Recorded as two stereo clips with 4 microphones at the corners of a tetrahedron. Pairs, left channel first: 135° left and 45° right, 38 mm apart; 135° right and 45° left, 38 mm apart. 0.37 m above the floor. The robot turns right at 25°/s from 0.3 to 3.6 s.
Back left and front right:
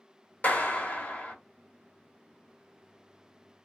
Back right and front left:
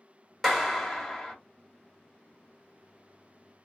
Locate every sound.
0.4 s a clap: 135° left, 1.0 m; by 1.4 s 160° left, 1.0 m